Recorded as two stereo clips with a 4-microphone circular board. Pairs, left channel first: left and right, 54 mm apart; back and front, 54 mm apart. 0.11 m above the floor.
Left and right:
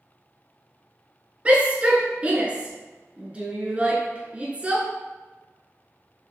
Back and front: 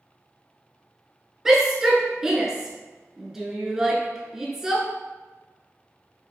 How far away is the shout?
About 1.1 m.